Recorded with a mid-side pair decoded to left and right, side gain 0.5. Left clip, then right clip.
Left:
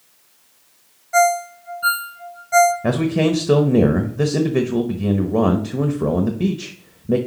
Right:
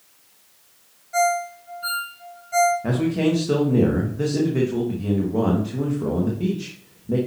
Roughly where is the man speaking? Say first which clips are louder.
Left 3 dB; ahead left.